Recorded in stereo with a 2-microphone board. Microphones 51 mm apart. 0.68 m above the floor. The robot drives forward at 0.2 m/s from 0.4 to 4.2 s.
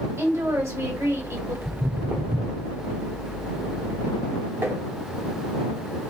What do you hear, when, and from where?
0.2 s a woman speaking: 70° right (ahead or behind), 2.5 m
1.6 s footsteps: 55° right (ahead or behind), 1.5 m; by 2.7 s 65° right (ahead or behind), 1.6 m
4.6 s tapping: 50° right (ahead or behind), 1.2 m